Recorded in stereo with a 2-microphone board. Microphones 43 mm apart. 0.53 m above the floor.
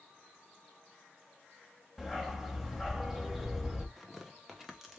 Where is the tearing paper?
5° right (ahead or behind), 1.0 m.